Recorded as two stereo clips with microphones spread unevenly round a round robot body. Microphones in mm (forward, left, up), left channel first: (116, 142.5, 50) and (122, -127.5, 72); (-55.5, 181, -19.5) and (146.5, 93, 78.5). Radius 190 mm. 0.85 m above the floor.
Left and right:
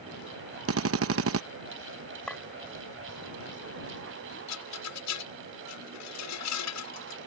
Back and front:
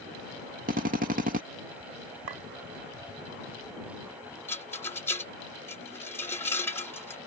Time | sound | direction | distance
0.7 | a drill | 95° right | ?
2.3 | a clink | 5° left | ?
4.5 | a rattle | 85° left | ?